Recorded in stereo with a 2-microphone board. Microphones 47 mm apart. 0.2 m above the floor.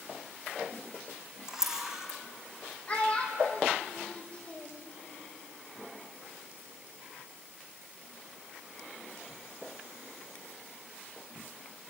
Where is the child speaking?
25° left (ahead or behind), 5 m.